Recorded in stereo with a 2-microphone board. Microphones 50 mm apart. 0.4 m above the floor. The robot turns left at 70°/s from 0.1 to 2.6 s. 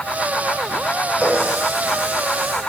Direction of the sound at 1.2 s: 25° left (ahead or behind).